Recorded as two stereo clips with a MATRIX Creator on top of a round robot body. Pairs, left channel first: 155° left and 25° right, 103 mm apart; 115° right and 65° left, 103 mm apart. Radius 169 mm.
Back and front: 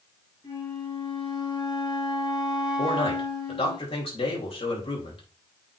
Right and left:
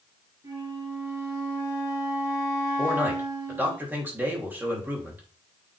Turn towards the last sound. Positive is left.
turn(degrees=140)